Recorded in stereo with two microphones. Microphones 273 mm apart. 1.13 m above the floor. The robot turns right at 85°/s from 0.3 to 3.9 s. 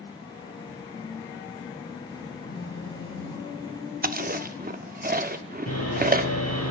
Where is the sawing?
65° left (ahead or behind), 8 m.